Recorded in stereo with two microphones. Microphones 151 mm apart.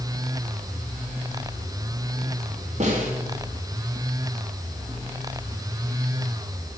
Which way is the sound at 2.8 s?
50° right (ahead or behind).